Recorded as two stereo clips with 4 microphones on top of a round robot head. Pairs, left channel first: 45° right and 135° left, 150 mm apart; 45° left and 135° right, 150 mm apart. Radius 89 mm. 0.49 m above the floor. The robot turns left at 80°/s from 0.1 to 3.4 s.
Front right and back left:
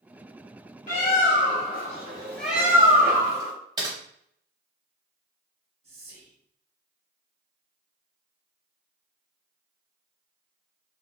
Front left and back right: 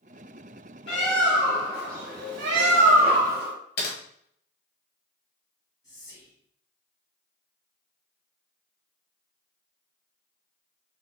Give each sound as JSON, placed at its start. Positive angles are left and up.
{"t": 0.9, "sound": "a bird", "azimuth_deg": -10, "distance_m": 0.9}
{"t": 3.8, "sound": "typing on a keyboard", "azimuth_deg": 65, "distance_m": 1.0}
{"t": 5.8, "sound": "whispering", "azimuth_deg": 105, "distance_m": 1.9}